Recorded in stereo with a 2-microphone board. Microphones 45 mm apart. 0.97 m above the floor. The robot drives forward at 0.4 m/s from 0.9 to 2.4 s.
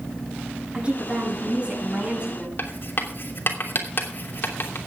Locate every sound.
0.7 s a woman speaking: 20° right (ahead or behind), 6 m
2.6 s writing: 50° left (ahead or behind), 3 m